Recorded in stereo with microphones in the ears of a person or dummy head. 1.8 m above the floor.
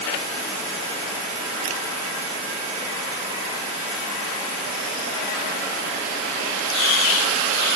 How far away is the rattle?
I don't hear a rattle.